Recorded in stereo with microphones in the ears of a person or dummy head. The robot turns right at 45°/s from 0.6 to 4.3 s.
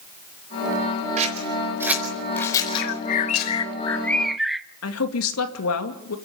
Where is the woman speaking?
90° left, 2.5 m.